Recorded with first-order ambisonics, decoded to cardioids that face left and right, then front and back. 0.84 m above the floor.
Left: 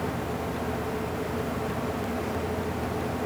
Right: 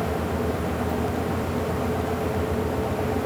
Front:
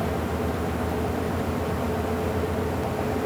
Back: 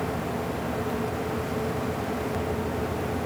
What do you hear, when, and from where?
Only background noise.